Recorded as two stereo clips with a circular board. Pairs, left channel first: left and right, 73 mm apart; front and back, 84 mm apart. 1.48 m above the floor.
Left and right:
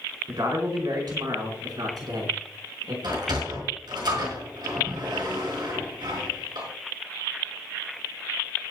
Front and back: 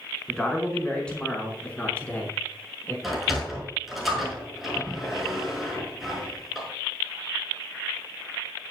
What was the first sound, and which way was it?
A man speaking, 80° right.